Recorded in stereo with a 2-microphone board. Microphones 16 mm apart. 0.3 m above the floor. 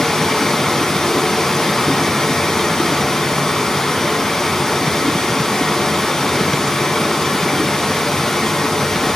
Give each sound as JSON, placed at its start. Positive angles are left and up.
{"t": 0.0, "sound": "running water", "side_deg": 55, "distance_m": 2.5}